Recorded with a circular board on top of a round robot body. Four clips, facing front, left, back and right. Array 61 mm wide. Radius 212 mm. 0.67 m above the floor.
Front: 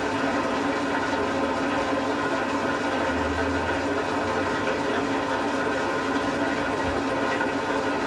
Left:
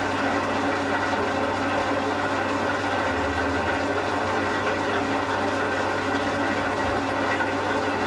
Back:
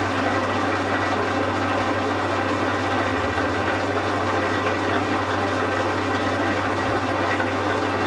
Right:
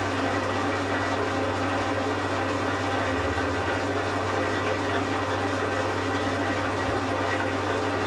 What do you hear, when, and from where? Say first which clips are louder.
0.0 s an engine running: left 2 dB, back 3 dB; 175° left, 1.2 m